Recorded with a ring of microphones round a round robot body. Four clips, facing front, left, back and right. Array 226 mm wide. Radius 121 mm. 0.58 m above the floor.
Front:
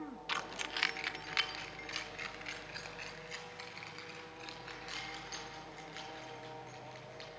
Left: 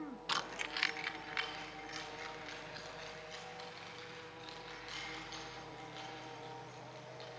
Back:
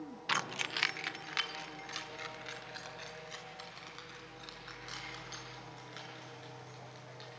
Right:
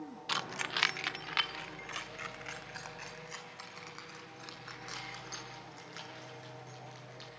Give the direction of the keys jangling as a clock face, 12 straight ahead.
6 o'clock.